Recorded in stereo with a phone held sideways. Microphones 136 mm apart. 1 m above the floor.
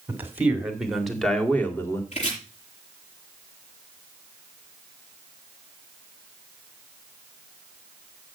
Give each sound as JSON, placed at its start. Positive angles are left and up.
{"t": 0.1, "sound": "a man speaking", "side_deg": -20, "distance_m": 2.5}
{"t": 2.1, "sound": "chopping", "side_deg": 60, "distance_m": 7.5}